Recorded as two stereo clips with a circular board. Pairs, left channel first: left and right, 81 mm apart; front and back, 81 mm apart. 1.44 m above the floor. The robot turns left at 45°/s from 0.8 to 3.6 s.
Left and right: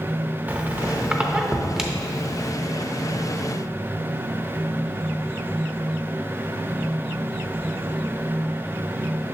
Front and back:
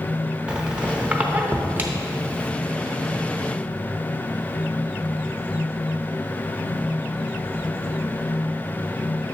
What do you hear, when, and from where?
0.5 s a squeak: 120° right, 0.7 m; by 2.5 s 165° left, 0.7 m